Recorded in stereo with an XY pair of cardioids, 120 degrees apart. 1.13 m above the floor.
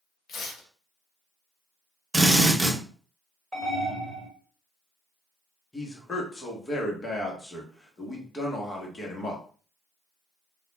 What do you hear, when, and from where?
0.3 s tearing paper: 55° left, 0.8 m
2.1 s a drill: 20° right, 0.9 m
3.5 s an alarm: 10° right, 1.4 m
5.7 s a man speaking: 20° left, 0.9 m